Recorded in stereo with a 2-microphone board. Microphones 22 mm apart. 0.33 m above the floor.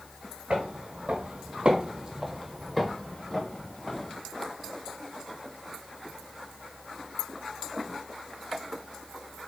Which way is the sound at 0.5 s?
70° right (ahead or behind).